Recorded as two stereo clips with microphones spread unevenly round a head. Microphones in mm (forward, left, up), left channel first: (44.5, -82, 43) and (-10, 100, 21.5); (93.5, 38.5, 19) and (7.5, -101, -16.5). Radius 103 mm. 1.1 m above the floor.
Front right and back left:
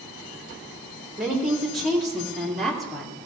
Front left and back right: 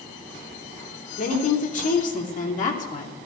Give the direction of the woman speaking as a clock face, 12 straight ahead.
11 o'clock.